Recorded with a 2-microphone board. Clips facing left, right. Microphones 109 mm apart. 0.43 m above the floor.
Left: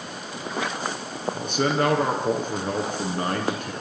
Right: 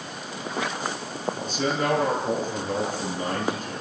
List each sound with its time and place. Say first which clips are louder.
1.3 s a man speaking: left 5 dB; 70° left (ahead or behind), 5.5 m